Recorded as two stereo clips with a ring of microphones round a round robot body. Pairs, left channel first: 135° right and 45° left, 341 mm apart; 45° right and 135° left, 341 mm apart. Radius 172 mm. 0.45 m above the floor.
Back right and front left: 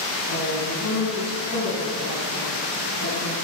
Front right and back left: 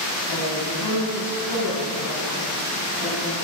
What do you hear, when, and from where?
0.3 s a woman speaking: 80° right, 4.5 m